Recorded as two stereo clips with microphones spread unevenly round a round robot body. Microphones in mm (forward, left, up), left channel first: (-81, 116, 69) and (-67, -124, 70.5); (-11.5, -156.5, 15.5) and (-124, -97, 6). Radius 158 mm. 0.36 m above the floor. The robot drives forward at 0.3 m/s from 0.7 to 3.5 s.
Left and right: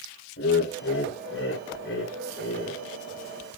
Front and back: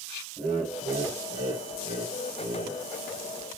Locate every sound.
0.4 s laughter: 100° left, 2 m; by 2.8 s 115° left, 2.5 m